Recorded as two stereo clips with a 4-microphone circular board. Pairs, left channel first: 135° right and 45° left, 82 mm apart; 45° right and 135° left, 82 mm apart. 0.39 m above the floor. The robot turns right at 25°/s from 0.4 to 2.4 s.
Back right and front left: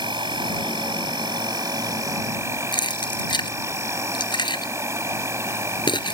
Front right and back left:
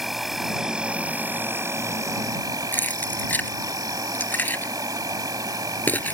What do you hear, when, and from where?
0.0 s an insect: 45° left; by 6.1 s 95° left
2.7 s keys jangling: 115° right